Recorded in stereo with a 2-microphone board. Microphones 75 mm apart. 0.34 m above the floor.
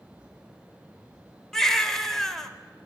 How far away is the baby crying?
About 0.6 m.